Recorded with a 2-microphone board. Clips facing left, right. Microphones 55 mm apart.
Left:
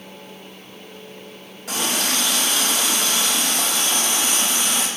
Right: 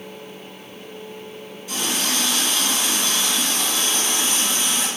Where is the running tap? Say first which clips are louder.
Left 2 dB; 85° left, 1.2 m.